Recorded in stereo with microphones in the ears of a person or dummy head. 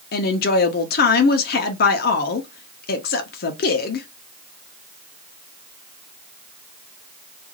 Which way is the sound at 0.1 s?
45° left (ahead or behind).